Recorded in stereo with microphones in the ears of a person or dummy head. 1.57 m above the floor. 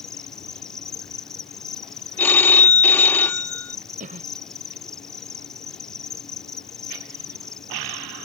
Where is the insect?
Centre (ahead or behind).